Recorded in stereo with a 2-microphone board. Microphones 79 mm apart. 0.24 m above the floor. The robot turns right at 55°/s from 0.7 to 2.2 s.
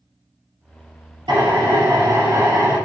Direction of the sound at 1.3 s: 100° right.